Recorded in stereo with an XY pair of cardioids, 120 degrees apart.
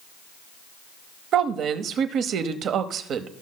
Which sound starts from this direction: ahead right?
A woman speaking, at 1.3 s.